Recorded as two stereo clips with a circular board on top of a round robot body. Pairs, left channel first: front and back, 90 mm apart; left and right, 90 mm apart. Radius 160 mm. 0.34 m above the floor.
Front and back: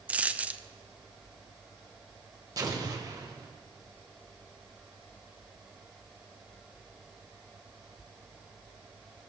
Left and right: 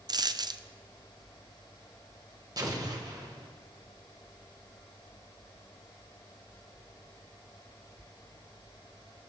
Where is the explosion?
135° right, 1.4 m.